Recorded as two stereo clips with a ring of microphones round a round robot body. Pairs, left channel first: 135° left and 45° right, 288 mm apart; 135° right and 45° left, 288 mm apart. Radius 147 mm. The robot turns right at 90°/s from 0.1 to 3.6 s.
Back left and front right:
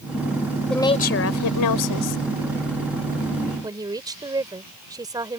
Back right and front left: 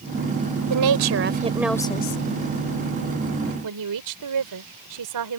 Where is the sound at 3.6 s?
30° left.